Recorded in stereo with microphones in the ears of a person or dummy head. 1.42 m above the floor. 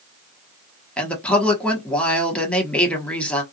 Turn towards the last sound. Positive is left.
turn(degrees=0)  # may be behind; listen again after turning